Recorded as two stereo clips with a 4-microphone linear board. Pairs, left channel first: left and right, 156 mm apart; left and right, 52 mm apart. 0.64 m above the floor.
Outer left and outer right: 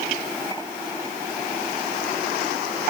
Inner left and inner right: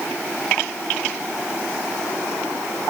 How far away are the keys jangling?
I don't hear keys jangling.